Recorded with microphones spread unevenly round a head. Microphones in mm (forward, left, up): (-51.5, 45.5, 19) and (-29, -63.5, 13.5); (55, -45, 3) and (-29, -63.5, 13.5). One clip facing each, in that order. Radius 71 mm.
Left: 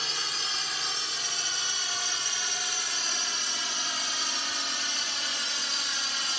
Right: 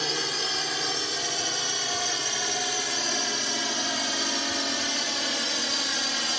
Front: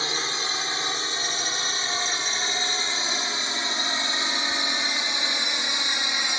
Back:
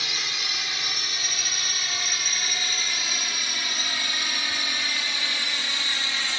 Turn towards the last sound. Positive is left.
turn(degrees=-60)